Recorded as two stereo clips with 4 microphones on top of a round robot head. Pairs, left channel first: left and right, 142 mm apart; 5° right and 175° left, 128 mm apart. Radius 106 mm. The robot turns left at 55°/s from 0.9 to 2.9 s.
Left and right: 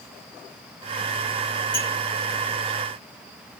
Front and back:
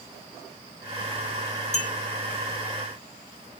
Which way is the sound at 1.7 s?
25° left.